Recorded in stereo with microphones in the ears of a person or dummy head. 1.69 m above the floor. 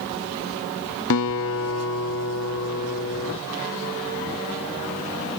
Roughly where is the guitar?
Left.